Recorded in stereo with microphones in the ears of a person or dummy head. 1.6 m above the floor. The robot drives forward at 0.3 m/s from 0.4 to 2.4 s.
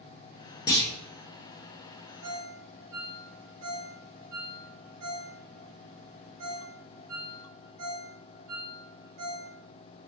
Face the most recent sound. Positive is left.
turn(degrees=-50)  # may be behind; listen again after turning